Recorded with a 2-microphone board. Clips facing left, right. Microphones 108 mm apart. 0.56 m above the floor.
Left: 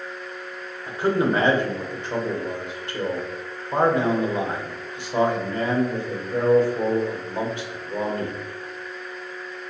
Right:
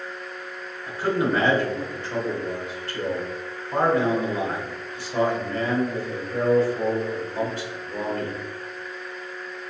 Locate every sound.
0.9 s a man speaking: 20° left (ahead or behind), 0.9 m